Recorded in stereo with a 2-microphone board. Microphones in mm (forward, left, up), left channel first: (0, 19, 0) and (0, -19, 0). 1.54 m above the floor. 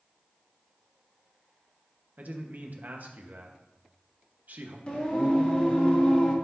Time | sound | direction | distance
2.2 | a man speaking | 50° right (ahead or behind) | 1.2 m
4.9 | singing | 30° left (ahead or behind) | 1.7 m